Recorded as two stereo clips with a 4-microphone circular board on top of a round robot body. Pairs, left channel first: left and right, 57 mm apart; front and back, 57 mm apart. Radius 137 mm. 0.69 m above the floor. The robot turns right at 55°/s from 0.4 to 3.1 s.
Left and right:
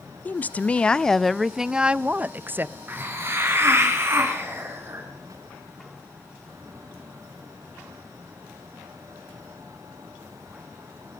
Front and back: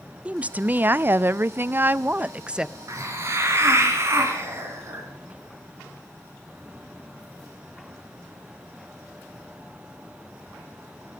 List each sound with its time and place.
0.2 s a woman speaking: 125° left, 0.5 m; by 2.8 s 105° right, 0.5 m
2.9 s a hiss: 150° right, 2.5 m; by 5.0 s 135° right, 2.5 m